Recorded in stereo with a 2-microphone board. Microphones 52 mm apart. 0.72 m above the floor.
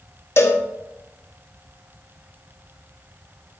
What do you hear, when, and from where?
0.4 s a cowbell: 55° left (ahead or behind), 0.9 m